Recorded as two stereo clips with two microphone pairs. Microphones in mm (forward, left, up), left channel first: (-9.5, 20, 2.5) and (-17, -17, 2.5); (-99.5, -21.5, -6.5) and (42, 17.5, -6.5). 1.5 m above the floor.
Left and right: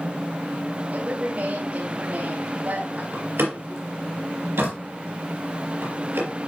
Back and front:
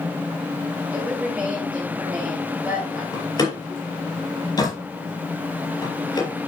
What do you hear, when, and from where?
0.9 s a woman speaking: 65° right, 2.5 m
3.1 s a door slam: 100° right, 4.5 m